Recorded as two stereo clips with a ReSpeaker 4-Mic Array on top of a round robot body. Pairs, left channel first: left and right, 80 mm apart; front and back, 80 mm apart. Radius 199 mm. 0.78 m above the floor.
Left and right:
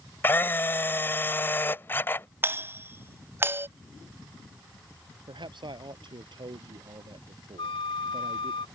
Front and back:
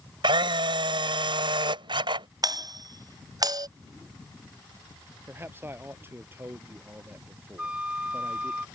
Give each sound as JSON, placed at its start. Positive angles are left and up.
{"t": 0.2, "sound": "a camera shutter", "azimuth_deg": 155}
{"t": 2.4, "sound": "a doorbell", "azimuth_deg": -150}
{"t": 5.3, "sound": "a man speaking", "azimuth_deg": -115}
{"t": 7.6, "sound": "a flute", "azimuth_deg": 105}